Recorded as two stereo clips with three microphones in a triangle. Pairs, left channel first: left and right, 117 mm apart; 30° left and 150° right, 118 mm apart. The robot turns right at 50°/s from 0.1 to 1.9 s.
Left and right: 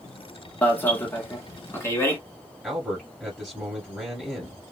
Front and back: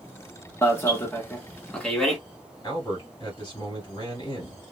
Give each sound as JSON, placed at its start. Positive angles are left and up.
{"t": 0.6, "sound": "an alarm", "azimuth_deg": 40, "distance_m": 1.4}
{"t": 2.6, "sound": "a man speaking", "azimuth_deg": -5, "distance_m": 2.5}